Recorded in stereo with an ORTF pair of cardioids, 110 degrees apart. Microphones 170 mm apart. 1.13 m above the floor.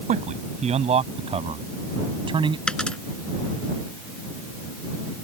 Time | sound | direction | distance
0.1 | a man speaking | 45° right | ?
2.7 | a dropped coin | 5° left | ?